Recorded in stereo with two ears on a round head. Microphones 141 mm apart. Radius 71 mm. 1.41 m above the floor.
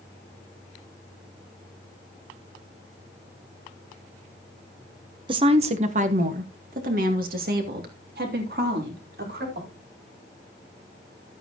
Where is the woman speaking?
30° right (ahead or behind), 1.0 m; by 9.7 s 65° right (ahead or behind), 4 m.